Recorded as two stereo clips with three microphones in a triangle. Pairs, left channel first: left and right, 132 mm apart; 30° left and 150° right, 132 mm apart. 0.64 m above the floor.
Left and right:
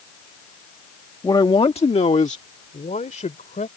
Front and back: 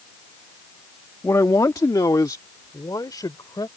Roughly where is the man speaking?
Left.